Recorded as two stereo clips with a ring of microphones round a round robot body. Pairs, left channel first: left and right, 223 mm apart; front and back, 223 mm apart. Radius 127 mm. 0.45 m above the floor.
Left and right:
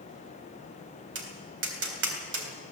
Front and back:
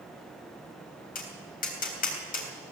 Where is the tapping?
55° right, 3.5 m.